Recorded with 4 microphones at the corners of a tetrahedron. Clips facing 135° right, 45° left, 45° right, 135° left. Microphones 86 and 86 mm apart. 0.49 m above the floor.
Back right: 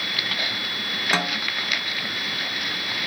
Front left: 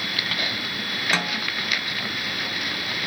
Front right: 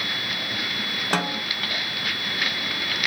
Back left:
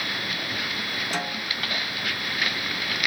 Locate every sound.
1.1 s a snare drum: 60° right, 0.8 m